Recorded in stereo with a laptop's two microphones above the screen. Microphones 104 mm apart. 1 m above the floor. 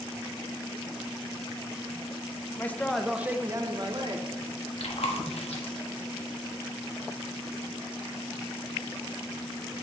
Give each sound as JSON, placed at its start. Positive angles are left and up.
{"t": 2.6, "sound": "a man speaking", "side_deg": 20, "distance_m": 0.6}
{"t": 4.8, "sound": "chewing", "side_deg": 75, "distance_m": 1.2}